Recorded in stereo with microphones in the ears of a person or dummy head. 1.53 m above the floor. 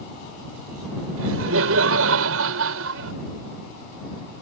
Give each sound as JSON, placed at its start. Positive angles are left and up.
{"t": 1.2, "sound": "laughter", "side_deg": -80}